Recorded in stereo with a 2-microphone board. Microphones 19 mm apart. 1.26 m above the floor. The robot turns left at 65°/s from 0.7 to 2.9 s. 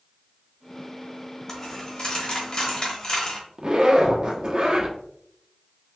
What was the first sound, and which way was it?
A dropped coin, 155° left.